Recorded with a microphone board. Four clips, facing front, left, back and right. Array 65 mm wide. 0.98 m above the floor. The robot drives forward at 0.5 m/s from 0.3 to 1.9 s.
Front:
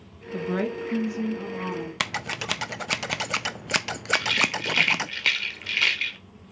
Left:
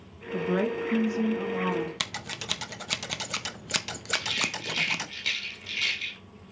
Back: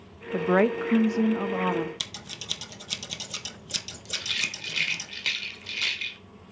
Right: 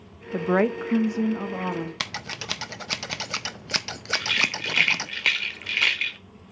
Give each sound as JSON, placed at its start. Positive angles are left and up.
{"t": 0.3, "sound": "a woman speaking", "azimuth_deg": -125, "distance_m": 0.7}
{"t": 2.0, "sound": "scissors", "azimuth_deg": -5, "distance_m": 0.6}
{"t": 4.1, "sound": "a rattle", "azimuth_deg": -60, "distance_m": 1.4}